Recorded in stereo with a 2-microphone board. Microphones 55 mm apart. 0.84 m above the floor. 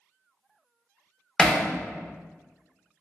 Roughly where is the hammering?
Centre.